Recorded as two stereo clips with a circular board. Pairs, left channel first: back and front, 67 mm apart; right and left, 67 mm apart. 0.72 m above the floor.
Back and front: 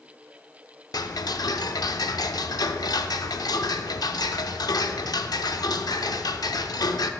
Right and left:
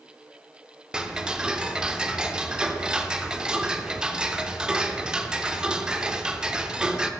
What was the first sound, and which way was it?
Ticking, 165° left.